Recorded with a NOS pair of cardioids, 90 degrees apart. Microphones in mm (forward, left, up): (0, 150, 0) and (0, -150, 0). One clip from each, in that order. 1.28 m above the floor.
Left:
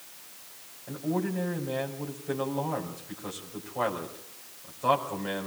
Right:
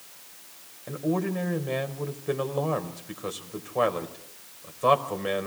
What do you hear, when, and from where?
0.9 s a man speaking: 55° right, 5.5 m